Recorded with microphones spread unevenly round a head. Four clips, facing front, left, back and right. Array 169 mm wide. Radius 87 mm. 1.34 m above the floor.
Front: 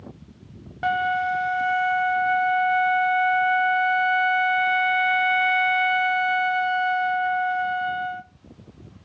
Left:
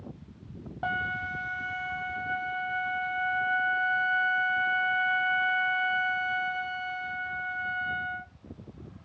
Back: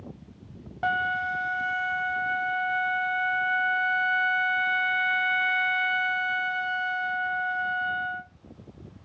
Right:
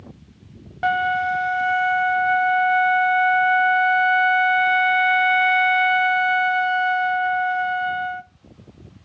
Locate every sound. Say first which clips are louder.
0.8 s a flute: right 12 dB, front 5 dB; 75° right, 0.6 m